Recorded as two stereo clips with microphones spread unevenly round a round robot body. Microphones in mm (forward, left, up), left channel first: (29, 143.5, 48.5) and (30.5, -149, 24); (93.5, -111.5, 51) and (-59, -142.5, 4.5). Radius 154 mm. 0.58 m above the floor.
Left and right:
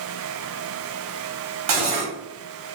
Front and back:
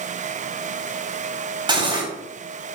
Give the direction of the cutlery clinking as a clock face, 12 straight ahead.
4 o'clock.